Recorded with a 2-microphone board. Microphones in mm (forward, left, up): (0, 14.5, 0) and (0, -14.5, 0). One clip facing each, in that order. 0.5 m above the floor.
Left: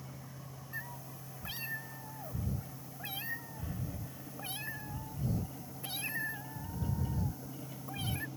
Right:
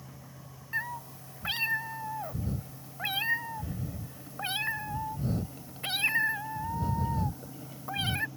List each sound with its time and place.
0.7 s a cat meowing: 75° right (ahead or behind)